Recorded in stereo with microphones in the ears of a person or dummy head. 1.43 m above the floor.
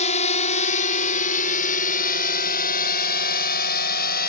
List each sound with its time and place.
0.0 s a drone: 40° left (ahead or behind); by 4.3 s 50° left (ahead or behind)